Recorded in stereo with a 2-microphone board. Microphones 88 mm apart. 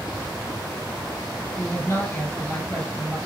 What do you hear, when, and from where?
1.6 s a woman speaking: 25° left (ahead or behind), 2.5 m